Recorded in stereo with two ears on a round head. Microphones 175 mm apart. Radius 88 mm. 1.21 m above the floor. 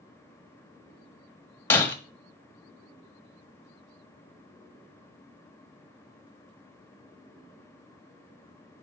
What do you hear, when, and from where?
1.7 s breaking glass: 10° left (ahead or behind), 1.4 m